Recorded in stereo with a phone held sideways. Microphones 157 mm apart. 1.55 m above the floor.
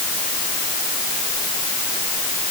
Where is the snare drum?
I don't hear a snare drum.